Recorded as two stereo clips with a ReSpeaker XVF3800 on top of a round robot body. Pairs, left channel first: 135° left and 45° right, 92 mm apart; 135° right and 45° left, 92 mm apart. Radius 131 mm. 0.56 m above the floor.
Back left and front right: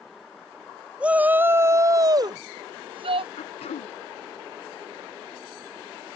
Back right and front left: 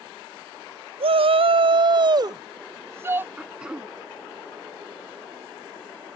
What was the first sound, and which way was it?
A shout, 35° left.